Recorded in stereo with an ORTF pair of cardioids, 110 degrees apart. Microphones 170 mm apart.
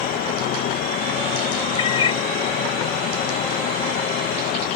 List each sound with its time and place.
0.0 s an insect: 65° left
1.8 s a cat meowing: 35° left